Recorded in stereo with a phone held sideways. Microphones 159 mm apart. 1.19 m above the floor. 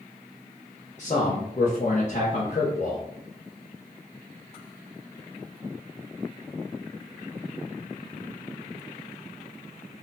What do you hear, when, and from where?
1.0 s a man speaking: 50° left (ahead or behind), 0.8 m